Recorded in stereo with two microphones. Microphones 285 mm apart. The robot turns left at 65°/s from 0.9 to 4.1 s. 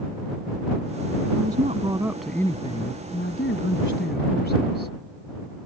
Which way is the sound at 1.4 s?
125° right.